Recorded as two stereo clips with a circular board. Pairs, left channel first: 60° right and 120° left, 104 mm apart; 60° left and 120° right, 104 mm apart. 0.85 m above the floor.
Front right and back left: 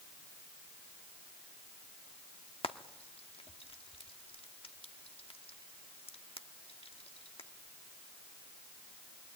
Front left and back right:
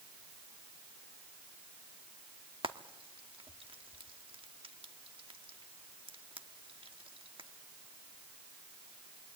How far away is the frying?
About 1.1 m.